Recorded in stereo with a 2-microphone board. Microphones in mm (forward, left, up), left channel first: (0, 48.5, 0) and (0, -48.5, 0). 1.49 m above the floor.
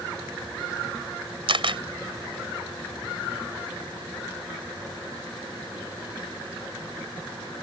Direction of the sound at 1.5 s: 65° right (ahead or behind).